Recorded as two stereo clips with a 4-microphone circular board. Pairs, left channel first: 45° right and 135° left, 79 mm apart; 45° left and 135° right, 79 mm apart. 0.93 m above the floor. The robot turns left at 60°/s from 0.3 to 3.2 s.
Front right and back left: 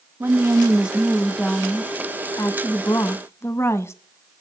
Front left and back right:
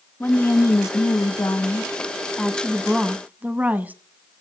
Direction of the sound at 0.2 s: 100° left.